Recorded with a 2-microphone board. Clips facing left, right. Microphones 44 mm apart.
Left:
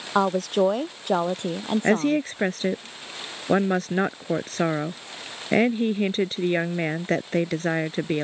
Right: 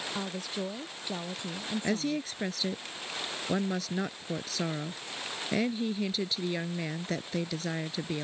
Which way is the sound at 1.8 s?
45° left (ahead or behind).